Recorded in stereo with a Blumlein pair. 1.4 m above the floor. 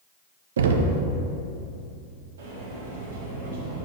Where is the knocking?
65° right, 0.5 m.